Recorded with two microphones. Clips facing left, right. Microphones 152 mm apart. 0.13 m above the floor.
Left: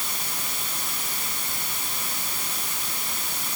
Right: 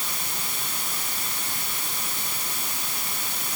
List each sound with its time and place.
Only background noise.